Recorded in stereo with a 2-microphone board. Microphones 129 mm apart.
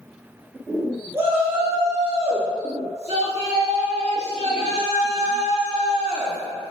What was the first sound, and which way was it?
A shout, 20° right (ahead or behind).